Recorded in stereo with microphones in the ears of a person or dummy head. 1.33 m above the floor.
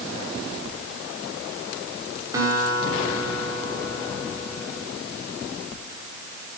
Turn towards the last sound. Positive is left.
turn(degrees=-20)  # may be behind; listen again after turning